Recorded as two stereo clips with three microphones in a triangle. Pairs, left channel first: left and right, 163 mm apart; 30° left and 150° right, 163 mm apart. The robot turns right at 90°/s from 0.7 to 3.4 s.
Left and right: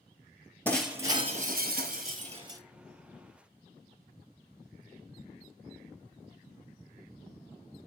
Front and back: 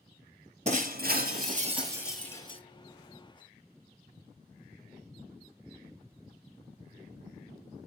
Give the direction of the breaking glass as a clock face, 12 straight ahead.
6 o'clock.